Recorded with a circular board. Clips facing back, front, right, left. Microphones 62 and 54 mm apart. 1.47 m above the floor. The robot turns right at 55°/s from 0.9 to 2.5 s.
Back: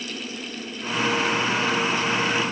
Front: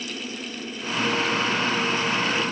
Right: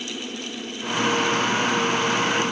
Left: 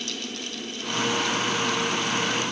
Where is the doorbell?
I don't hear a doorbell.